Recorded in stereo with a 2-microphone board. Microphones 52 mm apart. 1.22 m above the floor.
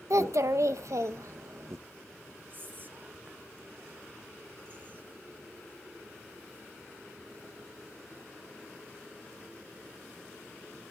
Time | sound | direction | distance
0.1 | a child speaking | 70° right (ahead or behind) | 0.7 m
2.5 | whispering | 40° right (ahead or behind) | 0.7 m